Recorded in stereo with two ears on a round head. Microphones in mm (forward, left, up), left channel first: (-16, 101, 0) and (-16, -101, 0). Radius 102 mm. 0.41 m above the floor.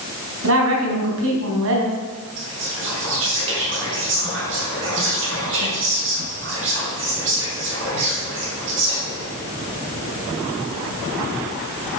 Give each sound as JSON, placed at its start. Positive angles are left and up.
{"t": 0.4, "sound": "a woman speaking", "side_deg": -60, "distance_m": 4.0}
{"t": 2.4, "sound": "whispering", "side_deg": -60, "distance_m": 5.0}